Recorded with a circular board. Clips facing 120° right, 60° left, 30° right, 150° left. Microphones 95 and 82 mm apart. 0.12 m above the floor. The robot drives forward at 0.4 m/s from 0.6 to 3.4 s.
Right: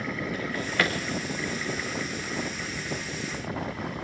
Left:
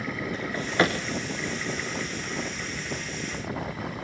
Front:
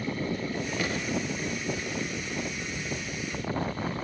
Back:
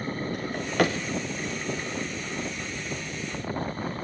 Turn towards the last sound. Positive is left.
turn(degrees=140)